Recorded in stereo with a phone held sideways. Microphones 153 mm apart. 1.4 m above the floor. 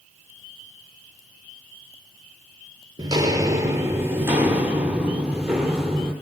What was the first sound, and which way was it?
Footsteps, 25° right (ahead or behind).